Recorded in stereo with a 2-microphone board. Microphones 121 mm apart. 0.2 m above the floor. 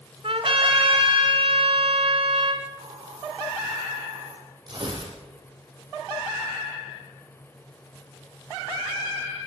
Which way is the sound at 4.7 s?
40° right (ahead or behind).